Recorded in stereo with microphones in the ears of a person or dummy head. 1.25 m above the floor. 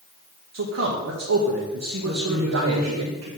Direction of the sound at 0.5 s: 60° right (ahead or behind).